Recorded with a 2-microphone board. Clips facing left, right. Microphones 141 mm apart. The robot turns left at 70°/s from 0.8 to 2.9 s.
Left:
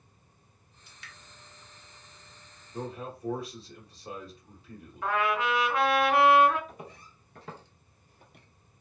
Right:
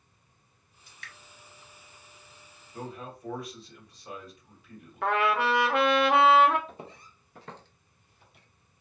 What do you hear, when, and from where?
0.9 s dripping: 45° right (ahead or behind), 1.4 m; by 1.1 s 65° right (ahead or behind), 1.4 m
2.7 s a man speaking: 25° left (ahead or behind), 1.1 m; by 5.1 s 30° left (ahead or behind), 1.1 m
5.0 s a trumpet: 75° right (ahead or behind), 0.6 m
6.7 s footsteps: 30° right (ahead or behind), 0.8 m; by 8.5 s 55° left (ahead or behind), 0.7 m